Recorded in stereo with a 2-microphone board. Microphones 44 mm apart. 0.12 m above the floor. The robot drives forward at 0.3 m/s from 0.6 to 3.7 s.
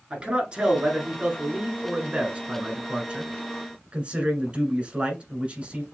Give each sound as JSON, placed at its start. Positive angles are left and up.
{"t": 0.1, "sound": "a man speaking", "side_deg": -25, "distance_m": 1.6}